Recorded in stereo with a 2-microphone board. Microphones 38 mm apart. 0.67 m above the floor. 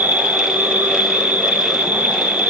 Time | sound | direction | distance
0.0 | an insect | 75° right (ahead or behind) | 1.3 m